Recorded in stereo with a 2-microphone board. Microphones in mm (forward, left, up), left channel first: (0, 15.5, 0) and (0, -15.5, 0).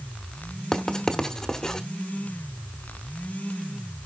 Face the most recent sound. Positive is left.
turn(degrees=20)  # may be behind; listen again after turning